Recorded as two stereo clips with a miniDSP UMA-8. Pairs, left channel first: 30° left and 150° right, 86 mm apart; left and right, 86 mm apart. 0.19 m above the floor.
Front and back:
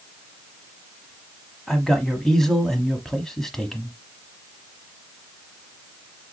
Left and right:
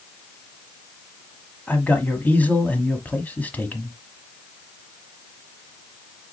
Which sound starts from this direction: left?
A man speaking, at 1.7 s.